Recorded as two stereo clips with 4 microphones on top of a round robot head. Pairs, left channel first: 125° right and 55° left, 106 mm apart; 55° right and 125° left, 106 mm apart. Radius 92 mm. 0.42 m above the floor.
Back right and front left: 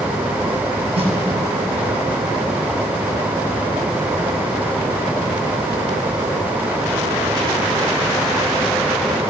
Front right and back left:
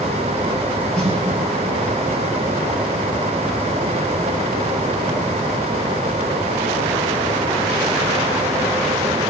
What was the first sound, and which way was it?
A snare drum, 30° left.